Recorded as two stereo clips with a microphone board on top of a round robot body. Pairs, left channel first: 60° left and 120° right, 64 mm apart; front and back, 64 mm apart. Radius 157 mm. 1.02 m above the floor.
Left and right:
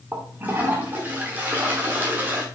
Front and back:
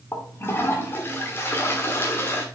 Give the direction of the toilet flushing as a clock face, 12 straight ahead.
2 o'clock.